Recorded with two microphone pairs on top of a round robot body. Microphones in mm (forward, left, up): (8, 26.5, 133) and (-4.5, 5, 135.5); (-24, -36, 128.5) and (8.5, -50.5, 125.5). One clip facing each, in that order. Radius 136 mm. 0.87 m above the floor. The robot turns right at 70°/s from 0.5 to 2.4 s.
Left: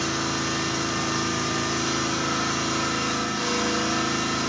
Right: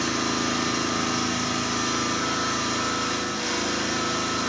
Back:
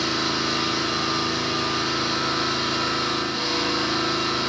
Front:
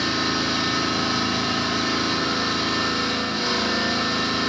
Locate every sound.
0.0 s an engine running: 100° right, 1.2 m; by 4.5 s 30° left, 1.2 m